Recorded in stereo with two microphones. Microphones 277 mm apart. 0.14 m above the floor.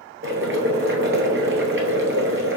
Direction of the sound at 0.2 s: 45° right (ahead or behind).